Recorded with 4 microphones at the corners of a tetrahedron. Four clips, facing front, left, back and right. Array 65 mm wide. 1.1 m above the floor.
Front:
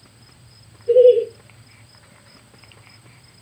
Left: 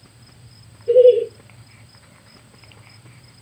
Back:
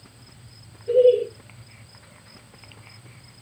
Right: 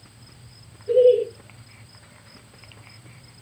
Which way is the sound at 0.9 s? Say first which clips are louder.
Left 4 dB, front 5 dB; 55° left.